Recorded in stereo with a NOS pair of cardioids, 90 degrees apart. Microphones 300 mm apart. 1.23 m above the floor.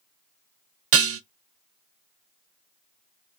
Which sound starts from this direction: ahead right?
Dishes clattering, at 0.9 s.